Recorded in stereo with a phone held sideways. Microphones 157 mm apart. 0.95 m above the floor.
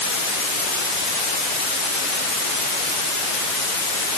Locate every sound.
Only background noise.